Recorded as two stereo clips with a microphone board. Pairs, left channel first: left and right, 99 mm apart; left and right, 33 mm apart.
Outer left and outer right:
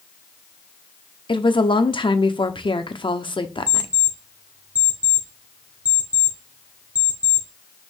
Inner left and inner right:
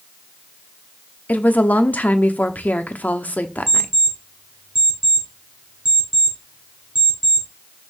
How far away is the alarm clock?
About 3 m.